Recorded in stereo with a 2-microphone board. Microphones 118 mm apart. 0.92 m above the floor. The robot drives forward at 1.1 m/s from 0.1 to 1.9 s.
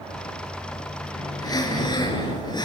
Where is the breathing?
35° left (ahead or behind), 4.5 m.